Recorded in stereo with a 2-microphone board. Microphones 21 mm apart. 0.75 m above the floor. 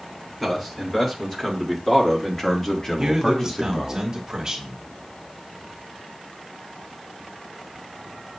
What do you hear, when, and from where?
0.4 s a man speaking: 15° left (ahead or behind), 2 m; by 4.0 s 20° left (ahead or behind), 0.9 m
3.0 s a man speaking: 30° right (ahead or behind), 1.3 m